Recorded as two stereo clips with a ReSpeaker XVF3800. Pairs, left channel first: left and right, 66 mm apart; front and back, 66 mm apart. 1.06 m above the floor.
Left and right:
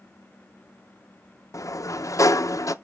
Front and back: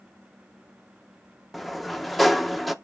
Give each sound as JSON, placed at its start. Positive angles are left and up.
{"t": 1.5, "sound": "a sliding door", "azimuth_deg": 90, "distance_m": 0.6}